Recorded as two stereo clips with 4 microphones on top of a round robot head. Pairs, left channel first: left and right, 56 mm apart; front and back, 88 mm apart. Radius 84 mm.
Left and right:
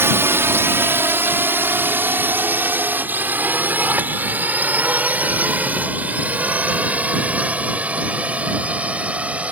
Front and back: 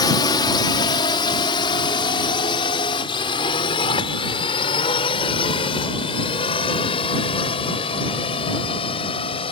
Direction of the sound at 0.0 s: 45° right.